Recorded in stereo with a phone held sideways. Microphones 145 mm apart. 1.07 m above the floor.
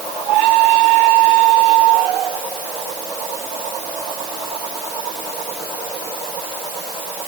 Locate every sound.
Only background noise.